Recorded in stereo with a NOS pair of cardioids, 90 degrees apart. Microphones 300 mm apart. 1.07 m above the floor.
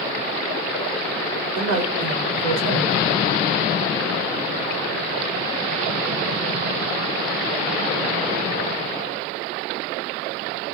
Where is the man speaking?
70° right, 1.3 m.